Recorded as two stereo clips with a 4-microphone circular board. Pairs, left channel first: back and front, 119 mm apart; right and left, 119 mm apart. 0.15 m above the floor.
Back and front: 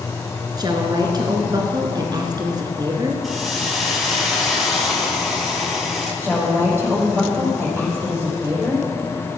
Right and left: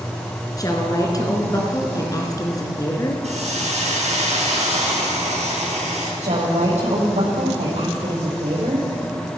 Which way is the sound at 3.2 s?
90° left.